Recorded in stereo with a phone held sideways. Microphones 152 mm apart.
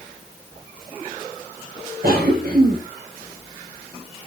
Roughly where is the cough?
Right.